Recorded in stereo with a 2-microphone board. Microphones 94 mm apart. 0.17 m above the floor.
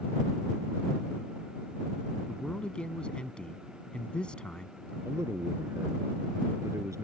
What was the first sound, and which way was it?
A man speaking, 10° left (ahead or behind).